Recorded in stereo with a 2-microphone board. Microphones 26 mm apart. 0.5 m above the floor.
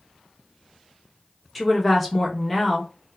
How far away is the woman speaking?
About 0.8 m.